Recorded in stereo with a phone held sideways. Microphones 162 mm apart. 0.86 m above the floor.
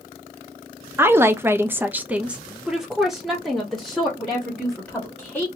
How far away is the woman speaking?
About 0.6 m.